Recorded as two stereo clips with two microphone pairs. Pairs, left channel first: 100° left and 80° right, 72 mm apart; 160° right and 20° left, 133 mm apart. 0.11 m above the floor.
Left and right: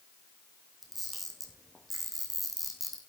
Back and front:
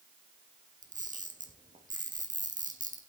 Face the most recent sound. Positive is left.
turn(degrees=10)